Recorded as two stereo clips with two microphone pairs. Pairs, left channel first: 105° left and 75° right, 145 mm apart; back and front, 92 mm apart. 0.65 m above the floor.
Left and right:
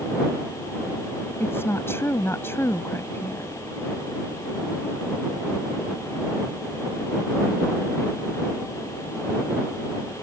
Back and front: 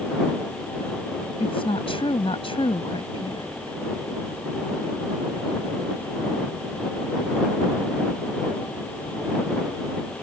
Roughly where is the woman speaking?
Behind.